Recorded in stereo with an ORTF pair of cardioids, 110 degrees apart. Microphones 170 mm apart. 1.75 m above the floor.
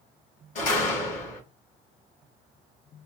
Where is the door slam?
50° left, 2.5 m.